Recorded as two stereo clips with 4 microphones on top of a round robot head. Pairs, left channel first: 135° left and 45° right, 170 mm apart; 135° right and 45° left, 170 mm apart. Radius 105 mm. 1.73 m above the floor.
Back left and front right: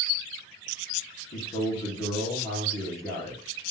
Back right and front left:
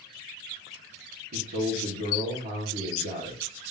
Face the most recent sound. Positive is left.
turn(degrees=75)